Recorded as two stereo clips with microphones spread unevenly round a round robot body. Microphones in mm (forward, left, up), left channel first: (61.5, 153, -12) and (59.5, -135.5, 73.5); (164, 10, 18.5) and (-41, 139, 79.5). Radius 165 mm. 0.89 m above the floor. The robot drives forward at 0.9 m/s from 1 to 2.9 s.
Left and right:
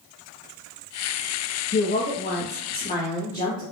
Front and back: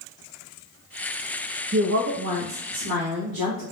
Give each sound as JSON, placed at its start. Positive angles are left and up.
{"t": 1.7, "sound": "a woman speaking", "azimuth_deg": 100, "distance_m": 0.7}